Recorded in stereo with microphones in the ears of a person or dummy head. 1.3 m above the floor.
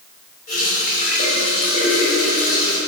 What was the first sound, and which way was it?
A running tap, 45° left (ahead or behind).